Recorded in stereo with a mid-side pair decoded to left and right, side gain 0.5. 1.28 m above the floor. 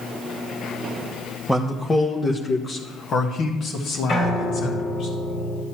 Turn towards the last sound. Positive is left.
turn(degrees=55)